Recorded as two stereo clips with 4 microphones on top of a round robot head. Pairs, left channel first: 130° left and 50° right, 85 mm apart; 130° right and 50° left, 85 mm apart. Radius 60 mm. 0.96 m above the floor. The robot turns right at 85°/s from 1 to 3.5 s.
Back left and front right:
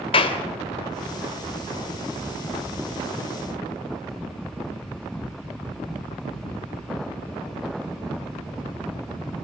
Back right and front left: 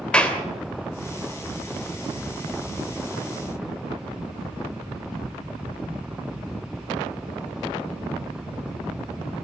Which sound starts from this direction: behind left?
A clap, at 0.1 s.